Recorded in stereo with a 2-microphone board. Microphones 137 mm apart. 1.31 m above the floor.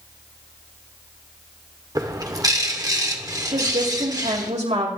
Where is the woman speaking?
55° right (ahead or behind), 3.5 m.